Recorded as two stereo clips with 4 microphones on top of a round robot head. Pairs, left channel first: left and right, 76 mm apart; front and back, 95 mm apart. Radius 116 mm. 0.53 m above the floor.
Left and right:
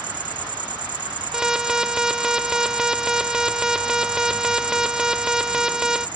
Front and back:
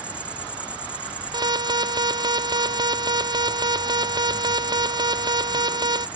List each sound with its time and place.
0.0 s an insect: 100° right
1.3 s an alarm: 170° right